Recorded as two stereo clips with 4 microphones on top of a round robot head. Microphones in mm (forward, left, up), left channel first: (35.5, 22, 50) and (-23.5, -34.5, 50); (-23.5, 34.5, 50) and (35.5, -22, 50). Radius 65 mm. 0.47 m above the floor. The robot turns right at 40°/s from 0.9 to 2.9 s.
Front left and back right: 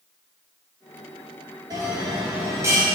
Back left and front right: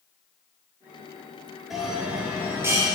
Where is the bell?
130° right, 2 m; by 2.9 s 85° right, 2 m.